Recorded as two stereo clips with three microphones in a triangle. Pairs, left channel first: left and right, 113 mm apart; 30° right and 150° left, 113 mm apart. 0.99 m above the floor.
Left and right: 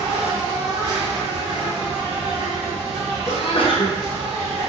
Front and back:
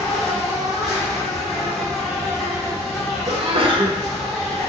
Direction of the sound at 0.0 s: 120° right.